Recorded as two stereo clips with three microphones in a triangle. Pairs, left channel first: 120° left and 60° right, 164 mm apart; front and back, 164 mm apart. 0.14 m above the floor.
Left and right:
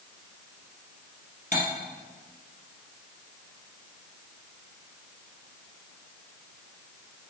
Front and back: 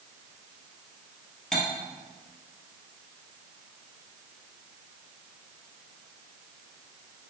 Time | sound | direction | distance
1.5 | cutlery clinking | 90° left | 1.8 m